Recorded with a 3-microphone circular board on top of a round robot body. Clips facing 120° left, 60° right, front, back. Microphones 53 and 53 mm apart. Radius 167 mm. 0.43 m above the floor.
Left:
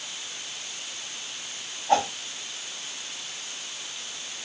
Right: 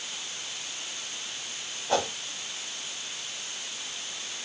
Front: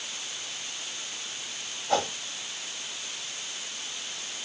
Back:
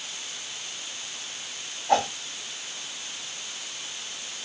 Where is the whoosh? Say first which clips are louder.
Left 5 dB, back 4 dB; 160° left, 1.9 m.